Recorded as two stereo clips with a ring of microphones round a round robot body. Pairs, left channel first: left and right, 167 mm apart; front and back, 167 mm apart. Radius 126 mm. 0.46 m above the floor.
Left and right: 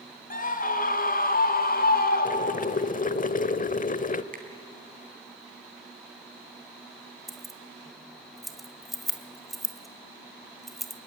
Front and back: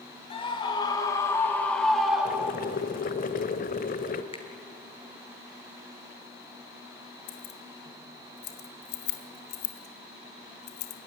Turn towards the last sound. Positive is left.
turn(degrees=0)